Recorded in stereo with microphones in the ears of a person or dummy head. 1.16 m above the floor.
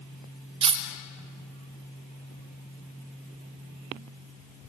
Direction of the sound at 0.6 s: 30° right (ahead or behind).